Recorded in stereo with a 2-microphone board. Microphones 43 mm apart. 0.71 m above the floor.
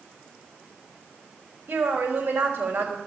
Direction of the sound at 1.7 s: 70° right (ahead or behind).